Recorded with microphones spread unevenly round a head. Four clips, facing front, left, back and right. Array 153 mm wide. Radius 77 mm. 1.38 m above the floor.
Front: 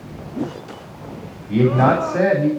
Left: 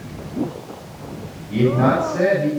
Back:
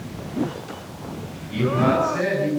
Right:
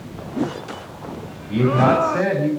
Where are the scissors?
No scissors in this recording.